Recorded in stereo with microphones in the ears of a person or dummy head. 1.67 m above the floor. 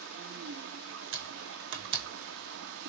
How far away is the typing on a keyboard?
About 2.5 m.